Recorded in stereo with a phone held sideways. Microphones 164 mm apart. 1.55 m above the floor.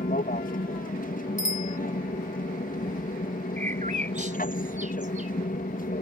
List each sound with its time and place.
0.0 s an aircraft: 65° left (ahead or behind)
1.4 s a bicycle bell: 50° left (ahead or behind)
3.6 s a bird: 55° right (ahead or behind)